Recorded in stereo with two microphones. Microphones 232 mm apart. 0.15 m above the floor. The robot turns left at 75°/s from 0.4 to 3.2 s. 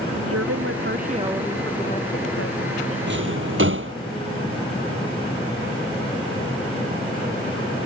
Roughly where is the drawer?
Right.